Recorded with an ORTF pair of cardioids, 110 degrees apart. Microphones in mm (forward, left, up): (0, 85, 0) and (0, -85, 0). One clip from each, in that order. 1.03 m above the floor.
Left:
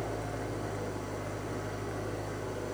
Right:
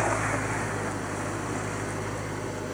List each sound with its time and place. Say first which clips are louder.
0.0 s an engine running: right 10 dB; 45° right, 5.5 m